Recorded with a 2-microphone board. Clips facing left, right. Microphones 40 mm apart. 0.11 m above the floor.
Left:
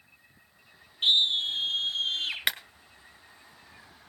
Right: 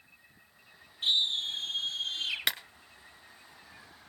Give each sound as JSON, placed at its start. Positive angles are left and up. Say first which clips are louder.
{"t": 1.0, "sound": "a scream", "louder": "left 5 dB", "side_deg": 55, "distance_m": 3.5}
{"t": 2.5, "sound": "a clap", "louder": "left 3 dB", "side_deg": 20, "distance_m": 1.1}